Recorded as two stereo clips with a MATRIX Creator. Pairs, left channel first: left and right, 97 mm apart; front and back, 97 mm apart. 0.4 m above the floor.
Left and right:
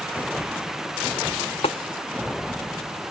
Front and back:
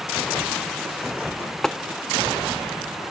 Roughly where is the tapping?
Left.